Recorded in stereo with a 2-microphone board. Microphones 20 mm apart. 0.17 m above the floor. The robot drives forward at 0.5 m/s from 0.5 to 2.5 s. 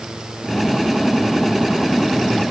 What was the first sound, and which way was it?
Only background noise.